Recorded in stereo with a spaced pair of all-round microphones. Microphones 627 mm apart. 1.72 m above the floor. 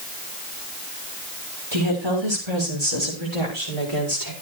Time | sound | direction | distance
1.7 | a woman speaking | 40° right (ahead or behind) | 6.5 m